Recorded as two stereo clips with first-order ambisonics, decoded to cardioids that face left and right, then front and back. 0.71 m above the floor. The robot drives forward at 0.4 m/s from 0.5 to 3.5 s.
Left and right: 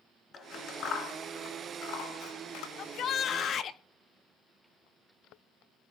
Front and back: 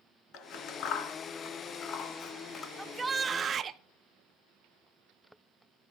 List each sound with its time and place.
0.3 s scissors: 40° left, 1.8 m; by 2.7 s 65° left, 1.2 m
2.8 s a shout: 95° left, 0.7 m; by 3.8 s 125° left, 0.8 m